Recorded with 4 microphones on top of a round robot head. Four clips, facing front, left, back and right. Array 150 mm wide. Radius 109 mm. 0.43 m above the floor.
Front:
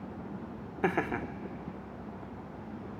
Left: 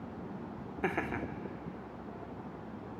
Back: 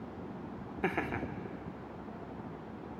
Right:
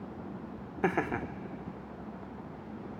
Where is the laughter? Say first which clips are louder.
Right 4 dB, front 4 dB; 45° right, 0.8 m.